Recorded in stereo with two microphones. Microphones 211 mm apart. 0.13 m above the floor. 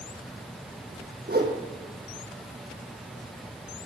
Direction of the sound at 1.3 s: 45° right (ahead or behind).